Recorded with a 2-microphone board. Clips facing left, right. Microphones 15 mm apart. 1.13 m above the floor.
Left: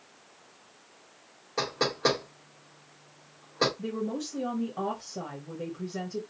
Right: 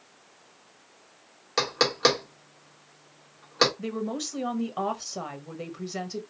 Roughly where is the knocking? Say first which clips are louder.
Right 5 dB; right.